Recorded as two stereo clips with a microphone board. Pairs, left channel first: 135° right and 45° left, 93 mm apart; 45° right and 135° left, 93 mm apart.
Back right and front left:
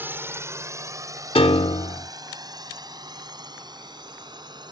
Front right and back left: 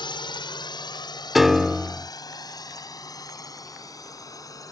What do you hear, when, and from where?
0.0 s a drone: 20° right; by 4.7 s 5° left
1.4 s a piano: 140° right